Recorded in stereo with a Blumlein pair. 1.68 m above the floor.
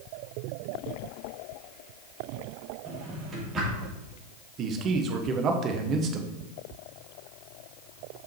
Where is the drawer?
25° right, 2.5 m.